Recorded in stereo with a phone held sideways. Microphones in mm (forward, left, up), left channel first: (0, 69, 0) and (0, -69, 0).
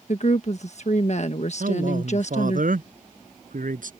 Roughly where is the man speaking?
Right.